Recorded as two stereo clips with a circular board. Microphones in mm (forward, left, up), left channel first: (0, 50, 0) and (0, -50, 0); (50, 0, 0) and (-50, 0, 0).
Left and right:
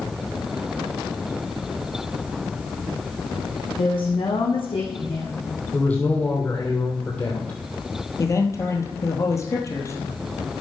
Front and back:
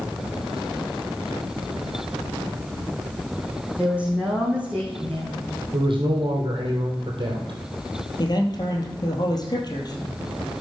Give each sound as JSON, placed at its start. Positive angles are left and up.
{"t": 3.8, "sound": "a woman speaking", "azimuth_deg": 105, "distance_m": 5.0}
{"t": 5.7, "sound": "a man speaking", "azimuth_deg": 160, "distance_m": 3.0}
{"t": 8.2, "sound": "a man speaking", "azimuth_deg": 35, "distance_m": 2.0}